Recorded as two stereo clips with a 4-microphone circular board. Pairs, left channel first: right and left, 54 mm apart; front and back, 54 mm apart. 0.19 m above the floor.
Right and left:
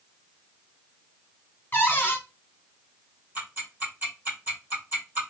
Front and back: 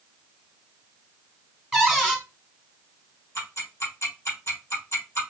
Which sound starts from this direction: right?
A cupboard door, at 1.7 s.